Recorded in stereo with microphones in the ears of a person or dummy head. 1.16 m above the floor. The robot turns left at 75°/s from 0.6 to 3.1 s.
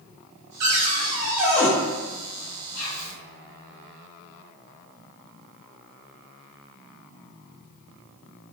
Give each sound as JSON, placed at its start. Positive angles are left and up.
{"t": 0.6, "sound": "a cupboard door", "azimuth_deg": -110, "distance_m": 0.8}
{"t": 2.8, "sound": "whispering", "side_deg": 80, "distance_m": 1.1}